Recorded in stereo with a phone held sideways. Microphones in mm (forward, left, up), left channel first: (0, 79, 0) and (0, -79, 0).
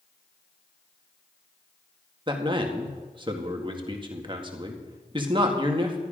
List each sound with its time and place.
2.3 s a man speaking: 30° right (ahead or behind), 1.6 m